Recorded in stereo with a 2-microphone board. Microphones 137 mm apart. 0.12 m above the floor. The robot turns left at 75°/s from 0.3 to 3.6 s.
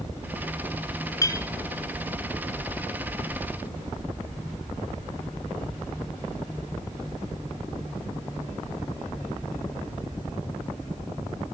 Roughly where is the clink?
Left.